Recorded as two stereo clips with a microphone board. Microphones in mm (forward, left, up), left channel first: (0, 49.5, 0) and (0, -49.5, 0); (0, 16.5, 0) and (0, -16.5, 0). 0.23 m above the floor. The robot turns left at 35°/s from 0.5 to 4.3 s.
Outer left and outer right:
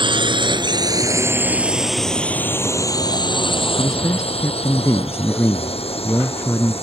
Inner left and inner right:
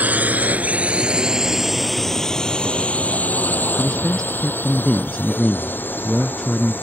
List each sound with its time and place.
0.0 s a drone: 55° right (ahead or behind); by 6.8 s 85° left
3.8 s a man speaking: 40° left (ahead or behind); by 6.7 s 25° left (ahead or behind)